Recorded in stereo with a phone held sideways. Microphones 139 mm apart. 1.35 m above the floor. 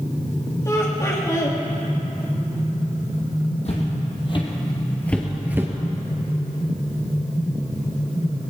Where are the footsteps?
50° left (ahead or behind), 3 m; by 5.7 s 20° right (ahead or behind), 1.6 m.